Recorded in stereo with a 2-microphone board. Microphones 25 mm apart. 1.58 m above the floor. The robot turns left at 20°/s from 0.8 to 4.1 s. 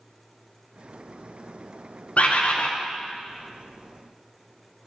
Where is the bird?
60° left (ahead or behind), 0.6 m; by 2.7 s 55° left (ahead or behind), 0.6 m.